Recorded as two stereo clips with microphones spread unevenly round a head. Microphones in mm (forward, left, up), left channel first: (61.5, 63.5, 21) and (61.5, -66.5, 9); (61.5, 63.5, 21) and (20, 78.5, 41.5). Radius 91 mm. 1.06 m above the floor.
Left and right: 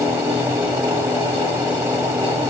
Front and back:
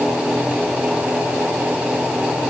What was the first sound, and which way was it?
Only background noise.